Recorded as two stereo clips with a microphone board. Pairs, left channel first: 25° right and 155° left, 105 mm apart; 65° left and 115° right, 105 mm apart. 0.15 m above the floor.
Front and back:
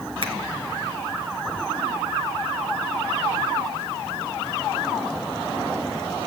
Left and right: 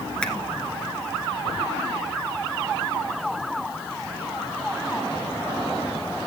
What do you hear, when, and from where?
0.2 s a finger snap: 145° left, 2 m